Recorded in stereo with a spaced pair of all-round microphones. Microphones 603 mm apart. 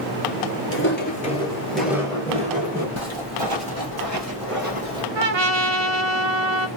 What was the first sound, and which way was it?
Footsteps, 20° left (ahead or behind).